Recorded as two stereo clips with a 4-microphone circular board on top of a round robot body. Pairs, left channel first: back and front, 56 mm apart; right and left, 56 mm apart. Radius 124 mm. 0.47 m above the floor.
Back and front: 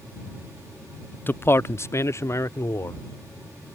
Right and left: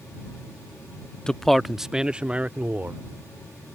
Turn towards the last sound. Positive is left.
turn(degrees=145)